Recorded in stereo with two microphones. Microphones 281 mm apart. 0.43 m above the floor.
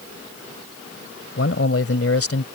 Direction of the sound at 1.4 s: 55° left (ahead or behind).